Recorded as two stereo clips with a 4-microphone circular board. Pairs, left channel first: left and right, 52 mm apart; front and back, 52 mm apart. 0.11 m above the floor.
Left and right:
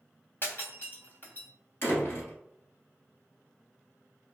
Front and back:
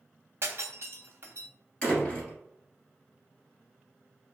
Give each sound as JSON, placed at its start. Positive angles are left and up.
{"t": 0.4, "sound": "breaking glass", "azimuth_deg": 140, "distance_m": 0.9}
{"t": 1.8, "sound": "a door slam", "azimuth_deg": 65, "distance_m": 1.2}